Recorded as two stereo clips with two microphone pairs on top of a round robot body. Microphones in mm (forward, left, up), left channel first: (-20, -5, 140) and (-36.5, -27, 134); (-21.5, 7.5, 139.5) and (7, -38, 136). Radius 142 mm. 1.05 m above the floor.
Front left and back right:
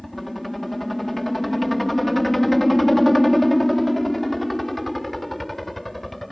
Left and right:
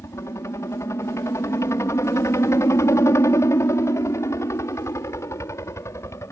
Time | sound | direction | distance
0.0 | a helicopter | 140° left | ?